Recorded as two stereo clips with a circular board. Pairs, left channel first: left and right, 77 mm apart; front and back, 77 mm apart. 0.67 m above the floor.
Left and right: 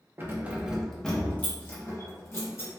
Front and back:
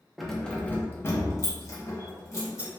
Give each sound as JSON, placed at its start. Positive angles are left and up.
{"t": 0.2, "sound": "keys jangling", "azimuth_deg": -90, "distance_m": 0.5}